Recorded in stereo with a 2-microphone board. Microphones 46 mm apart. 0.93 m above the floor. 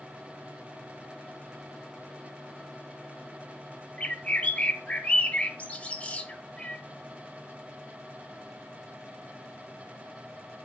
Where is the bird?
30° left (ahead or behind), 1.0 m.